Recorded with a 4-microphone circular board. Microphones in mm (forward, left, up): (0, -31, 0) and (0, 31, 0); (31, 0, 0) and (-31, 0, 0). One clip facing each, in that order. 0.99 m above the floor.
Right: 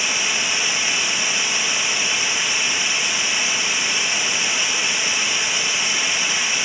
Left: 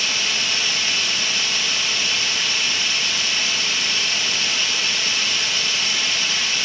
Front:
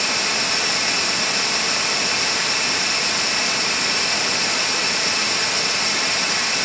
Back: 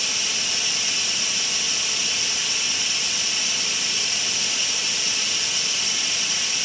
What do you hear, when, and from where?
0.0 s running water: 20° right, 1.0 m